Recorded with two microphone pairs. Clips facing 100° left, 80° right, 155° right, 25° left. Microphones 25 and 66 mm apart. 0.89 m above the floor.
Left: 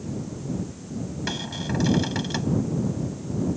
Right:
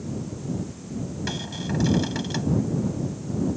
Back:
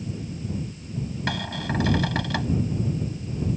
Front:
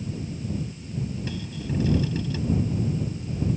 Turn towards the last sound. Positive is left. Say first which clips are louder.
# left 2 dB, back 4 dB
turn(degrees=-175)